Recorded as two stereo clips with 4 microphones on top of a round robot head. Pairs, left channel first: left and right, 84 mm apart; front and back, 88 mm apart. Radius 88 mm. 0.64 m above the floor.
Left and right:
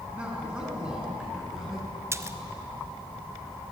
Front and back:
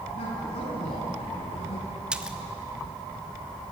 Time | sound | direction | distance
0.1 | a man speaking | 15° right | 5.5 m
2.1 | a splash | 105° right | 1.0 m